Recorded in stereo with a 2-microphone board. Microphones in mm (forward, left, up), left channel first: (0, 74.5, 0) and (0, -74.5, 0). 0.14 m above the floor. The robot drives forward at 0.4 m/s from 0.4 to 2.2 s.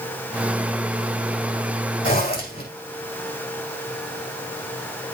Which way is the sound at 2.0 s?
75° left (ahead or behind).